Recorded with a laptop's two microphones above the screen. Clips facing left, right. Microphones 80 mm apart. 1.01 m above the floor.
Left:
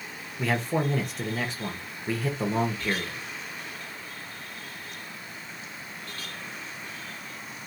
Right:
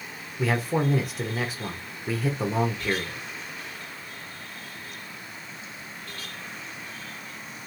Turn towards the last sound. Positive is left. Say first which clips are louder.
# right 2 dB
turn(degrees=-5)  # may be behind; listen again after turning